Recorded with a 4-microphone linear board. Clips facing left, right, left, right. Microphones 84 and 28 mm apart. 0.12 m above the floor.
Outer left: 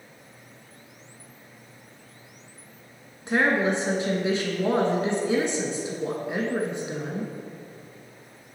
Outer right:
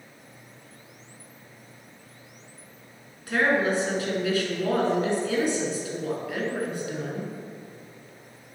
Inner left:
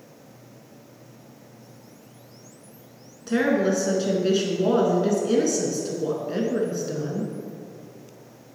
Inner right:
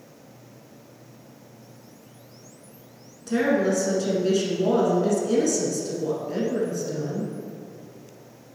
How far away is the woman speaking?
About 1.2 m.